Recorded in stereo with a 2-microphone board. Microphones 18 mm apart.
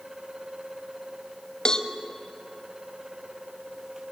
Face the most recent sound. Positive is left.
turn(degrees=45)  # may be behind; listen again after turning